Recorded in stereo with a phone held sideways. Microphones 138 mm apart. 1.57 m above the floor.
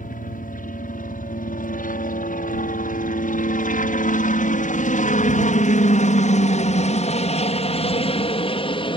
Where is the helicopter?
70° left (ahead or behind); by 9.0 s 35° left (ahead or behind).